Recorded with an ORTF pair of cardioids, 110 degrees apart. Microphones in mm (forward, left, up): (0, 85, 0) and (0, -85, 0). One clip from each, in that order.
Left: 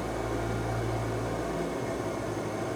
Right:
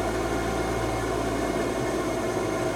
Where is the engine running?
55° right, 2.5 m.